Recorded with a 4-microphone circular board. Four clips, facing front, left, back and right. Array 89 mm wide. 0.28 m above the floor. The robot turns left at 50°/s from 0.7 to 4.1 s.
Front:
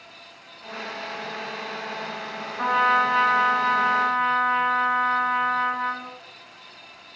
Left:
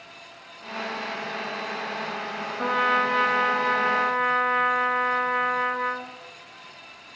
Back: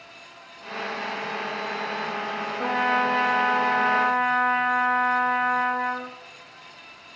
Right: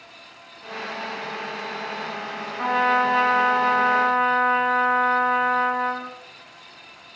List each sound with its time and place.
2.6 s a trumpet: 30° right, 1.0 m; by 6.2 s 105° right, 1.0 m